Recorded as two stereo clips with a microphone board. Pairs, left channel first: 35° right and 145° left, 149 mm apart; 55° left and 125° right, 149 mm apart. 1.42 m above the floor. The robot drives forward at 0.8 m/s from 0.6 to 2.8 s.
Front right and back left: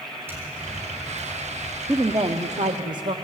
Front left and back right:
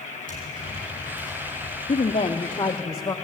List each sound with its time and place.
0.3 s tapping: 140° right, 6.5 m; by 1.8 s 145° right, 7.5 m
1.9 s a woman speaking: 80° left, 0.8 m; by 3.1 s 125° left, 1.0 m